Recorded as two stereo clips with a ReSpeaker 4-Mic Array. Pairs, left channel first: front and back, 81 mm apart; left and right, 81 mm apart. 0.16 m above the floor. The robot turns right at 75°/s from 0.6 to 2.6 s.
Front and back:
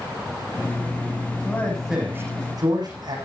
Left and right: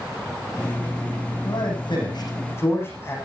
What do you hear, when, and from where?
1.4 s a man speaking: 65° left, 9 m; by 3.2 s 150° left, 9 m